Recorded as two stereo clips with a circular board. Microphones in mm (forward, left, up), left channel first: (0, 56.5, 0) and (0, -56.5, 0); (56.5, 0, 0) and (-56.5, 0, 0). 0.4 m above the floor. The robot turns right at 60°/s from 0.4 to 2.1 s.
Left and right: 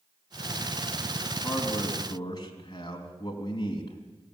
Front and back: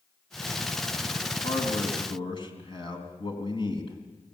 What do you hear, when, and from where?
1.4 s a man speaking: straight ahead, 4 m; by 4.0 s 40° left, 4 m